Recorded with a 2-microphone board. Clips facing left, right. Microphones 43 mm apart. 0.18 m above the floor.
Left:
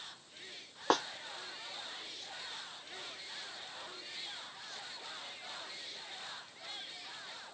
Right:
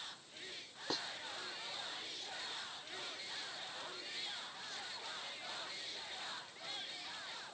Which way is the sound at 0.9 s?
65° left (ahead or behind).